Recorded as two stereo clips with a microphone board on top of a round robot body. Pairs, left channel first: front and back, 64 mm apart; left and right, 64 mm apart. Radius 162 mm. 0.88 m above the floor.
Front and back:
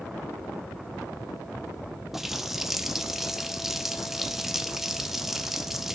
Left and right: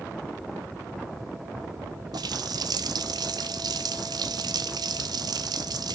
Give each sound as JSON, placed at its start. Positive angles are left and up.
{"t": 2.1, "sound": "a running tap", "azimuth_deg": -95, "distance_m": 0.7}